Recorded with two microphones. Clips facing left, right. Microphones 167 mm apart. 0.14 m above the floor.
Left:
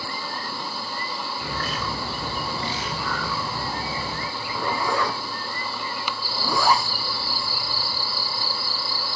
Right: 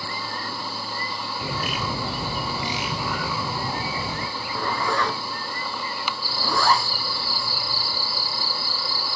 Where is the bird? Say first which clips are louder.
Right 3 dB; 15° right (ahead or behind), 1.4 m.